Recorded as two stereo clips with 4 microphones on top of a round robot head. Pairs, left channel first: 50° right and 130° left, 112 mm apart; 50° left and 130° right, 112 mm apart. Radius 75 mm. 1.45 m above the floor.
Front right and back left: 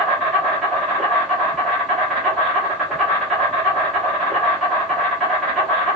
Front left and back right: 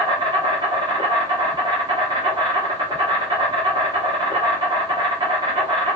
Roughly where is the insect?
Behind right.